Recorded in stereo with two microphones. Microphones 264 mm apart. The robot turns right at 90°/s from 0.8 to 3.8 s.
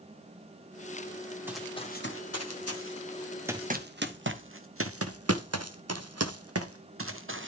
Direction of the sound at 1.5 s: 10° right (ahead or behind).